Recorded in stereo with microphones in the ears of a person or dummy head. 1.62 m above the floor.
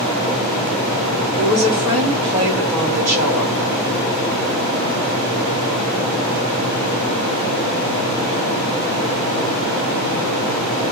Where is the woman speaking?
40° right (ahead or behind), 2.5 m; by 3.6 s 10° right (ahead or behind), 1.9 m.